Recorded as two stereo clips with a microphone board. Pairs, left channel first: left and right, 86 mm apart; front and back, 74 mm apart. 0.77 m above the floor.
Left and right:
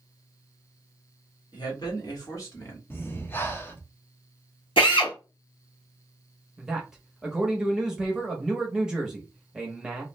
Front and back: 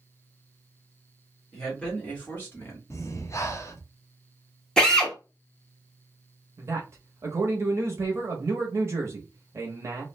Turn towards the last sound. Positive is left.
turn(degrees=-170)